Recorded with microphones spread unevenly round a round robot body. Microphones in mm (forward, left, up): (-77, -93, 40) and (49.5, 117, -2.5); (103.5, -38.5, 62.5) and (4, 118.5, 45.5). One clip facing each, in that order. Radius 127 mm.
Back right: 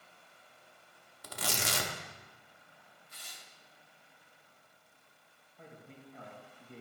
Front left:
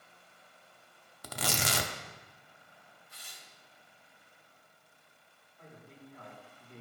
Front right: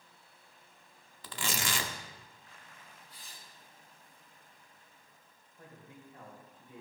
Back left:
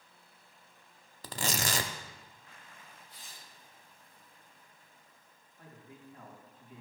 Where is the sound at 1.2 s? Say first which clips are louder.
Front left 3 dB, back left 3 dB; 70° left, 0.6 m.